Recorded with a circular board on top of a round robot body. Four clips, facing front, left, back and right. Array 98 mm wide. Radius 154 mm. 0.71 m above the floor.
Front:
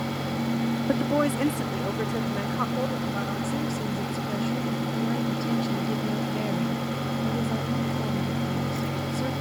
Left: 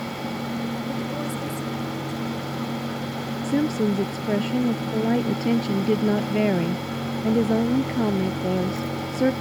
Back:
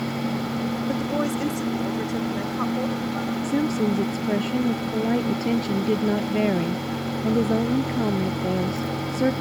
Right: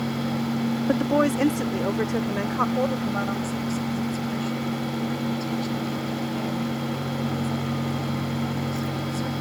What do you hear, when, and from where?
0.9 s a woman speaking: 70° right; by 3.3 s 85° right
3.4 s a woman speaking: 120° left